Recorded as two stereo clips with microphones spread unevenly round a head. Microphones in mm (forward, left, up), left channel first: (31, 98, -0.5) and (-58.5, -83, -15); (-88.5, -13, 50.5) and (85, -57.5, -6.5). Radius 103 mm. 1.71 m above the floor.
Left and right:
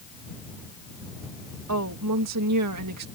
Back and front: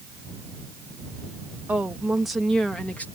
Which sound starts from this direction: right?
A woman speaking, at 1.7 s.